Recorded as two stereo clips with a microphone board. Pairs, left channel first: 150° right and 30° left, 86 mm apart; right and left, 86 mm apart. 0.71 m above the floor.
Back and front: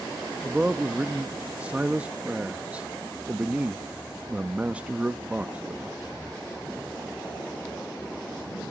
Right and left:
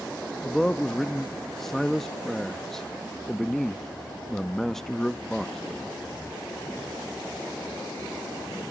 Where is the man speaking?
10° right, 0.5 m.